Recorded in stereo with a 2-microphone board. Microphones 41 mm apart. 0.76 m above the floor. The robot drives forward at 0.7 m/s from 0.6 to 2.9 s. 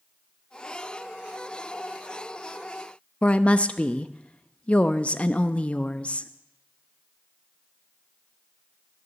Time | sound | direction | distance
3.2 | a woman speaking | 30° left (ahead or behind) | 0.5 m